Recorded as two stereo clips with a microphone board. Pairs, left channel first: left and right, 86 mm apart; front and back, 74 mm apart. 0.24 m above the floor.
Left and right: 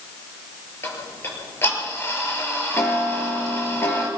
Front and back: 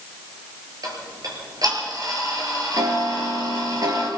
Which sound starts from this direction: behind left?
Ticking, at 0.8 s.